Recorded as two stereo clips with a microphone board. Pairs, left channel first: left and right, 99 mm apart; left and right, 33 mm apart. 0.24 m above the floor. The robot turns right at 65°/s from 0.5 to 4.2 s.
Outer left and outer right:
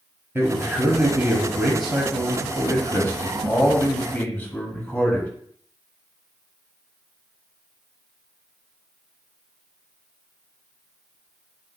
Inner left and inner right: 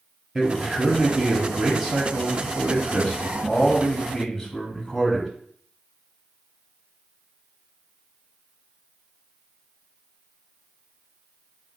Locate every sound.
0.3 s a man speaking: 25° right (ahead or behind), 1.1 m; by 5.3 s 15° left (ahead or behind), 1.1 m